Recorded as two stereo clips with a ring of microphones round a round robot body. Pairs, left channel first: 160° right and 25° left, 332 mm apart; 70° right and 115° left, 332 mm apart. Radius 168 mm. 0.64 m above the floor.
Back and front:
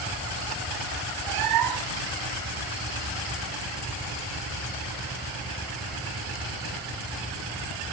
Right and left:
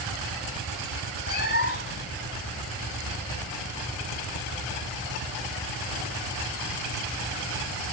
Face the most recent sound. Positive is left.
turn(degrees=-5)